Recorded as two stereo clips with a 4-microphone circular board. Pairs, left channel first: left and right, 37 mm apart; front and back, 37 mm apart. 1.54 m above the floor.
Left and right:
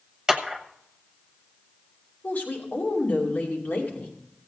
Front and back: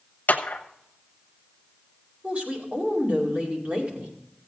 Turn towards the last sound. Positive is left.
turn(degrees=135)